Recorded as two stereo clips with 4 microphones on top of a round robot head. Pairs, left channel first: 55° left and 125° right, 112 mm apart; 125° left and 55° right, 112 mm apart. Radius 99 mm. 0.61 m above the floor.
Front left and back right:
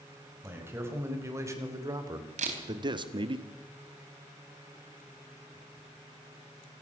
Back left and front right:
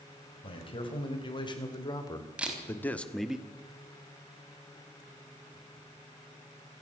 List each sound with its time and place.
0.4 s a man speaking: 165° left, 5.5 m; by 3.4 s 135° right, 1.7 m
2.4 s a camera shutter: 135° right, 4 m